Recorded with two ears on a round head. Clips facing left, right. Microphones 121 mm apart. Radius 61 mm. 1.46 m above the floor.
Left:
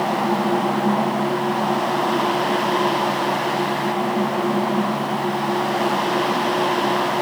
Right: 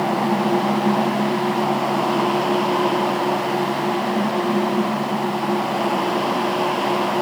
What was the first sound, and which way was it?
Only background noise.